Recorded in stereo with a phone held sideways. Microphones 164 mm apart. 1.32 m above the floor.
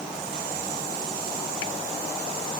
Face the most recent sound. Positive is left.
No sound to turn to.